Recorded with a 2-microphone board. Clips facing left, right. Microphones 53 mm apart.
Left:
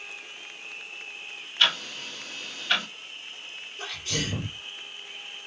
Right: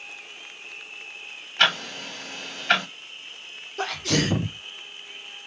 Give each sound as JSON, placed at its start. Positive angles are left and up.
{"t": 1.6, "sound": "ticking", "side_deg": -75, "distance_m": 1.6}
{"t": 3.8, "sound": "a sneeze", "side_deg": -85, "distance_m": 0.7}